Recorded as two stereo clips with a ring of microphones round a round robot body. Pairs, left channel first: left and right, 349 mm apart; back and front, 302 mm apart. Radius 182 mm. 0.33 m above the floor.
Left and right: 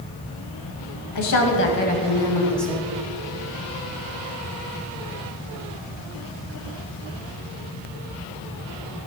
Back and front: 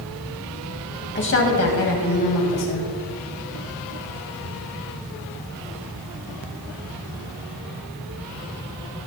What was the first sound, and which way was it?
A woman speaking, 125° left.